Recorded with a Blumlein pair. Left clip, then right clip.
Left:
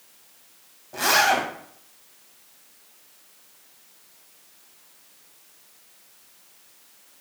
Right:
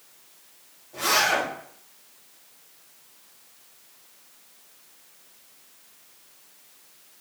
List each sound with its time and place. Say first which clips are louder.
0.9 s a zipper: left 3 dB; 45° left, 1.2 m